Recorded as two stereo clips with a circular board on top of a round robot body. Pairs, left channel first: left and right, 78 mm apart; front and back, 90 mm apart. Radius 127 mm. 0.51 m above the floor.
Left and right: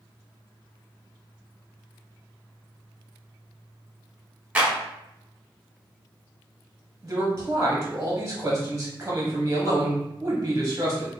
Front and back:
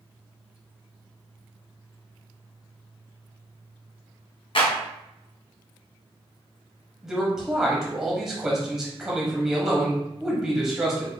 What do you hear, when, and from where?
4.5 s a clap: 15° right, 1.3 m
7.0 s a man speaking: 105° right, 1.1 m